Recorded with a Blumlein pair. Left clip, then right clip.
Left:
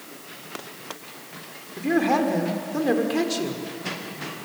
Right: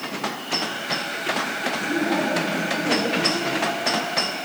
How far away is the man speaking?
About 5 m.